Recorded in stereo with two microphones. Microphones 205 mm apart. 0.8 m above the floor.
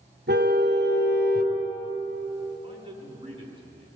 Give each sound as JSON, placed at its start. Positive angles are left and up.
{"t": 0.3, "sound": "a car horn", "side_deg": -60, "distance_m": 3.0}
{"t": 2.6, "sound": "a man speaking", "side_deg": -25, "distance_m": 8.5}